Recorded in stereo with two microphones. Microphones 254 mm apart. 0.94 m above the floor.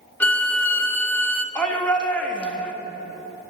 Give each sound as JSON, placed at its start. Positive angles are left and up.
{"t": 0.2, "sound": "a violin", "side_deg": 5, "distance_m": 1.0}
{"t": 1.6, "sound": "a shout", "side_deg": 5, "distance_m": 1.4}